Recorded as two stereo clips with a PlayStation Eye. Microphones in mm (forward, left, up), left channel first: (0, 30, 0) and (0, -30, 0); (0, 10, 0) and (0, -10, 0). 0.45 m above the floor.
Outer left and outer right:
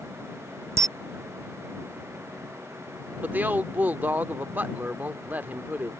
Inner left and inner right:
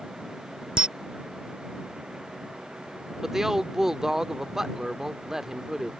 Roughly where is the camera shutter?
Right.